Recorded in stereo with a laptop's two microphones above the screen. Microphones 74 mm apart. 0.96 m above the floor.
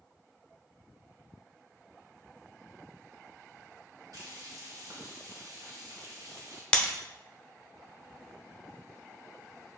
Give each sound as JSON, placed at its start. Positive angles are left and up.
{"t": 4.1, "sound": "frying", "side_deg": -60, "distance_m": 1.2}
{"t": 6.7, "sound": "breaking glass", "side_deg": 15, "distance_m": 0.9}